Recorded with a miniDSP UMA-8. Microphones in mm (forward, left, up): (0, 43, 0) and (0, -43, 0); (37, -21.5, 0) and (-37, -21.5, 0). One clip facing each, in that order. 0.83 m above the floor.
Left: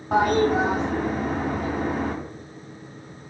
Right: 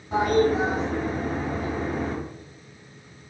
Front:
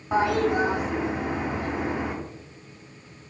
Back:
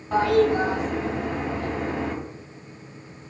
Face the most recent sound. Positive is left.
turn(degrees=75)